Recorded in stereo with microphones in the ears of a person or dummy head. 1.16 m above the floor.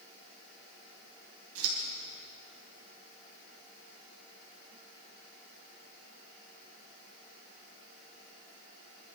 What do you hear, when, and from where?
1.6 s scissors: 80° right, 4 m